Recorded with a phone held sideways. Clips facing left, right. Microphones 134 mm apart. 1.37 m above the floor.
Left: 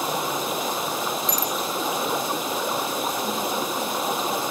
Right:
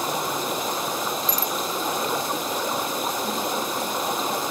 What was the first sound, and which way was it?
Running water, centre (ahead or behind).